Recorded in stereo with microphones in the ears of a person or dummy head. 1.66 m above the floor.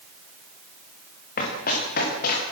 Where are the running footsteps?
55° left (ahead or behind), 8.5 m.